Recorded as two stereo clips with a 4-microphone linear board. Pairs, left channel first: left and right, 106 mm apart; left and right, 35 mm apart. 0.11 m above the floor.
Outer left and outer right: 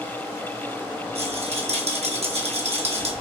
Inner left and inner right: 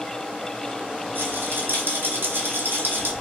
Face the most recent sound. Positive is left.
turn(degrees=-80)